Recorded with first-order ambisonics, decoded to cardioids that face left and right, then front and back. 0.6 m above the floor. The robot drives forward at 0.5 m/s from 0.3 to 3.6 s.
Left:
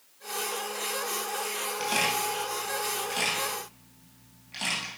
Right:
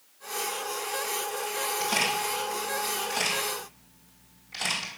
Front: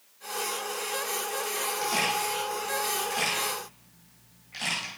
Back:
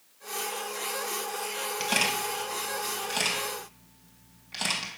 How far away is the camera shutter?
About 2.5 m.